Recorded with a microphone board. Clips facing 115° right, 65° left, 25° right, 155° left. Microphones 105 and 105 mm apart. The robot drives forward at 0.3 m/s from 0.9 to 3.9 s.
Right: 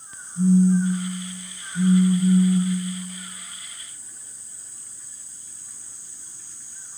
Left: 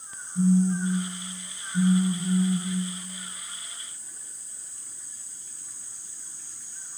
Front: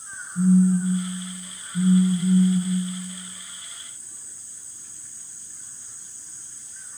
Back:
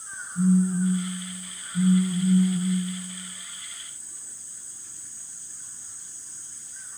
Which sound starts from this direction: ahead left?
A phone buzzing, at 0.3 s.